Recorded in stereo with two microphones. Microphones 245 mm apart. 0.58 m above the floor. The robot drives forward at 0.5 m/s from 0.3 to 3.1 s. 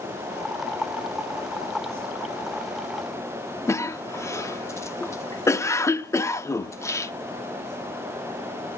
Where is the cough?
10° left (ahead or behind), 0.7 m.